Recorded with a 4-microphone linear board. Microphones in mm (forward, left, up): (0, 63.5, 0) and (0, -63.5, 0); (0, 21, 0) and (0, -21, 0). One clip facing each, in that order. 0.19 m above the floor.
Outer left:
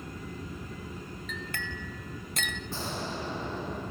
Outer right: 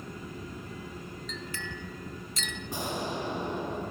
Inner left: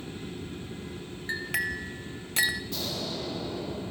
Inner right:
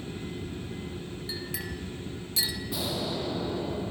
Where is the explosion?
15° right (ahead or behind), 4 m.